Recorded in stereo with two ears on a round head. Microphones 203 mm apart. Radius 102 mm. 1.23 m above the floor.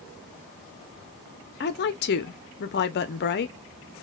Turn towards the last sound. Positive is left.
turn(degrees=50)  # may be behind; listen again after turning